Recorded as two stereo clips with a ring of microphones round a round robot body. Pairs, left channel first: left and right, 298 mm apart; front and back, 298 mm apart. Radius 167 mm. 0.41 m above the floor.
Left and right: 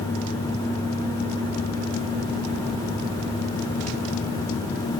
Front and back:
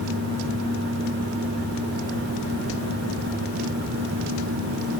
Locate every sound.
Only background noise.